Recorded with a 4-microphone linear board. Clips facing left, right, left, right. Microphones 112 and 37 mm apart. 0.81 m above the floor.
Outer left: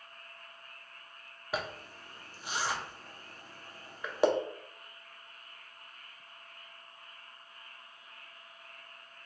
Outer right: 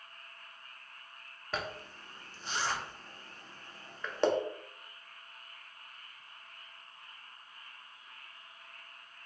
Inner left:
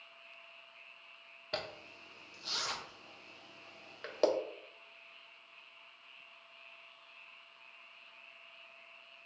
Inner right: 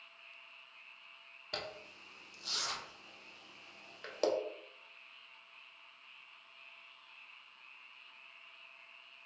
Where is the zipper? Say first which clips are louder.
Outer left 2 dB, inner left 2 dB; 10° left (ahead or behind), 0.8 m.